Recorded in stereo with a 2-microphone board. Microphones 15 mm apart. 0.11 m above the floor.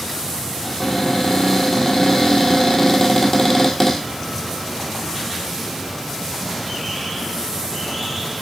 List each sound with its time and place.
0.6 s a cupboard door: 15° left (ahead or behind), 2.0 m